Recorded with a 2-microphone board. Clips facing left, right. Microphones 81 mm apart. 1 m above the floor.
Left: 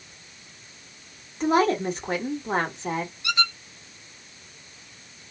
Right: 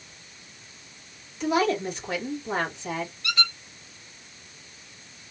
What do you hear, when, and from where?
1.4 s a woman speaking: 40° left (ahead or behind), 1.7 m
3.2 s a squeak: 20° left (ahead or behind), 1.5 m